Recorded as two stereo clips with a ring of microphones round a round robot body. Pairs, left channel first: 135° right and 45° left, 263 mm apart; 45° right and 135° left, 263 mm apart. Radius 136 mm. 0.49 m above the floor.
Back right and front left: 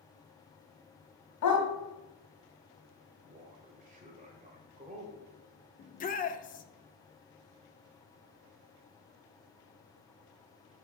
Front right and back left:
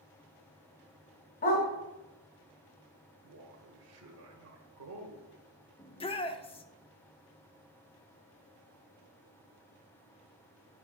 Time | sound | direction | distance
1.4 | a dog barking | 105° right | 1.5 m
3.2 | a man speaking | 105° left | 1.7 m
5.8 | a shout | 100° right | 0.8 m